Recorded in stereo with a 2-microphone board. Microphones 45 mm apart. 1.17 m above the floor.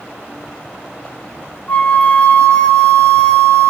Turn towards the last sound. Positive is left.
turn(degrees=30)  # may be behind; listen again after turning